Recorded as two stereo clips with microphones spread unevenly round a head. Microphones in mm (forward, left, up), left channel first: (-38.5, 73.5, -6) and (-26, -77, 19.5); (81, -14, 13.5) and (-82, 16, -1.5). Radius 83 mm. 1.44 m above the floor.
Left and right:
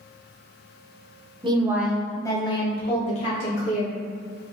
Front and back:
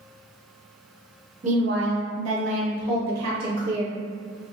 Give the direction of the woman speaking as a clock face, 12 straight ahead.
5 o'clock.